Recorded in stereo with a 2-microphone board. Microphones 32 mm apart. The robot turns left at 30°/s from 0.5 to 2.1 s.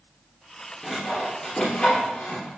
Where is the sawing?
Centre (ahead or behind), 2.5 m; by 2.5 s 35° left (ahead or behind), 2.5 m.